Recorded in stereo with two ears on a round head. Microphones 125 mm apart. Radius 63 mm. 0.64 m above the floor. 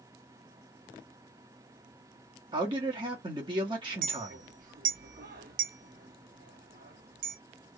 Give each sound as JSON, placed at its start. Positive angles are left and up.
{"t": 2.5, "sound": "a man speaking", "side_deg": -35, "distance_m": 1.2}
{"t": 4.0, "sound": "a clink", "side_deg": -70, "distance_m": 0.9}